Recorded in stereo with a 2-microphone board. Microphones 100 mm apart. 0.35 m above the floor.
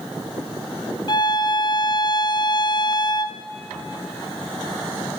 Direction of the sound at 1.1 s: 45° left (ahead or behind).